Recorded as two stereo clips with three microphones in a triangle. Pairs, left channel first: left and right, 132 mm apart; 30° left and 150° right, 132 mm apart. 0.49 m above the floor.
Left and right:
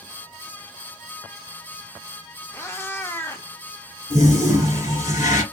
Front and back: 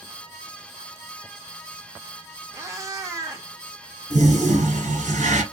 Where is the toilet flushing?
150° right, 1.2 m.